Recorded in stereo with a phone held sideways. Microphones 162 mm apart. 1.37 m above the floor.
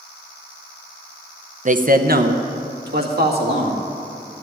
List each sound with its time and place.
1.6 s a man speaking: 50° right (ahead or behind), 0.6 m; by 3.8 s 80° right, 2.5 m